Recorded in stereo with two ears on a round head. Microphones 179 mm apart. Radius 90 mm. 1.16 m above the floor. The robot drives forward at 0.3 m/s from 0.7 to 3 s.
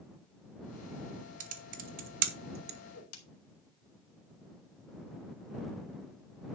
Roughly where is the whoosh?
Left.